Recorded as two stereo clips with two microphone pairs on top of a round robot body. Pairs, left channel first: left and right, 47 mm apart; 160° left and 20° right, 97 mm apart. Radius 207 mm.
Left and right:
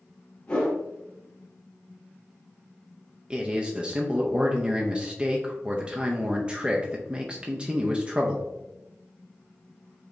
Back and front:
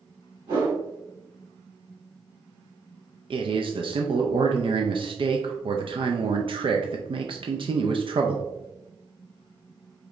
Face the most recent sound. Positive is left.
turn(degrees=-25)